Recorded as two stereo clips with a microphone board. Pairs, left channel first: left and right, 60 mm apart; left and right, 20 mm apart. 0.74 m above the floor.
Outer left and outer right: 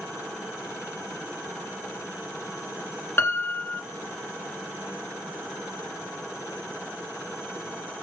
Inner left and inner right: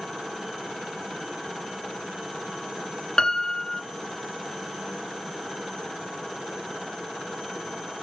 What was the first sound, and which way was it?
A piano, 40° left (ahead or behind).